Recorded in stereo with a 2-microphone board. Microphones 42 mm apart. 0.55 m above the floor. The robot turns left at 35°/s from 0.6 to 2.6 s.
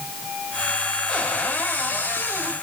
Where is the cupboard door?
150° left, 4 m; by 2.5 s 100° left, 4 m.